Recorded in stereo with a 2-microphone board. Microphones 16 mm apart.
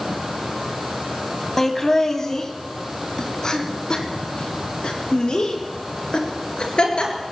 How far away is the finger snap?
I don't hear a finger snap.